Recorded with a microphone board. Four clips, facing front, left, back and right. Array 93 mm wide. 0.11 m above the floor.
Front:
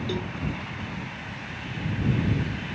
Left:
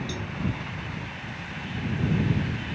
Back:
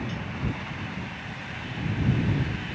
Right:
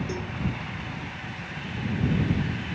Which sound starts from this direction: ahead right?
A cowbell, at 0.1 s.